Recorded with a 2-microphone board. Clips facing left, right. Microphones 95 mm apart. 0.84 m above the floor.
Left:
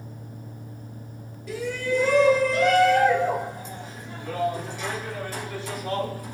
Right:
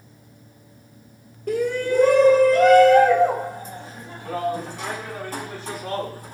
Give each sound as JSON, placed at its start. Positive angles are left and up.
{"t": 1.5, "sound": "a shout", "side_deg": -50, "distance_m": 1.5}